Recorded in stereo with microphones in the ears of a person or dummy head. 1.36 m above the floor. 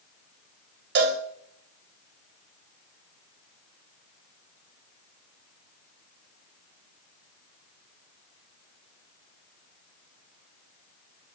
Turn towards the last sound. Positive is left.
turn(degrees=-50)  # may be behind; listen again after turning